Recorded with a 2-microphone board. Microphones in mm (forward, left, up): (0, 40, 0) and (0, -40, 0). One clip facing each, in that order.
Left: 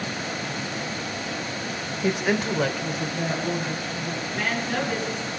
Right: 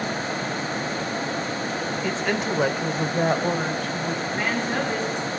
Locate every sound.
2.0 s a woman speaking: 20° left (ahead or behind), 1.1 m; by 4.2 s 70° right (ahead or behind), 2 m
4.3 s a woman speaking: 25° right (ahead or behind), 6 m